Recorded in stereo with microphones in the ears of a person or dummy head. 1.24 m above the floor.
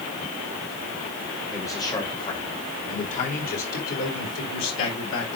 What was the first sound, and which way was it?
A man speaking, 15° left (ahead or behind).